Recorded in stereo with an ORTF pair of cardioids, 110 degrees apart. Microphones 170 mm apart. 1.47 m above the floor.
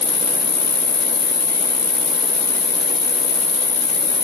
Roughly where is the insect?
Ahead left.